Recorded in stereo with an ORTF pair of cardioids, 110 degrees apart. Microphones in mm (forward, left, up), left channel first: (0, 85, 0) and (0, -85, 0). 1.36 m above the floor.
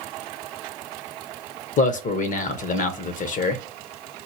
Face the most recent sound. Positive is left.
turn(degrees=50)